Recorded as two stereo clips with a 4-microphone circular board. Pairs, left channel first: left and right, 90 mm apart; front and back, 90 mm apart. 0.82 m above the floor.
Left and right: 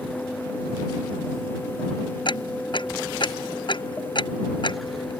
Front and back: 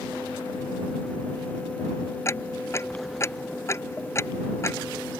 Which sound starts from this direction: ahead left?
Ticking, at 2.2 s.